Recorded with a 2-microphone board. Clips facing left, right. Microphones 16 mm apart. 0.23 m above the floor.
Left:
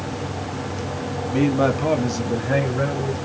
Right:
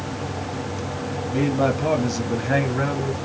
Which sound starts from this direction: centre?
A man speaking, at 1.3 s.